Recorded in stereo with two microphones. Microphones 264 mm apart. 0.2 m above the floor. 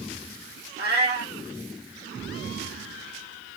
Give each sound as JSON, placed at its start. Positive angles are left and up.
{"t": 0.8, "sound": "a cat meowing", "side_deg": -40, "distance_m": 1.0}